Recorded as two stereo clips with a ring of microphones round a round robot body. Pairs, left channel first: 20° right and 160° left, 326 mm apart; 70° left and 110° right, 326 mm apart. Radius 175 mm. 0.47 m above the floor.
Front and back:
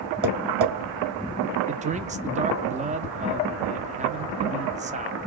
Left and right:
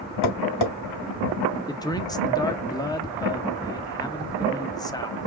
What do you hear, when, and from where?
0.2 s tapping: 100° left, 2.0 m
1.7 s a man speaking: 130° left, 0.8 m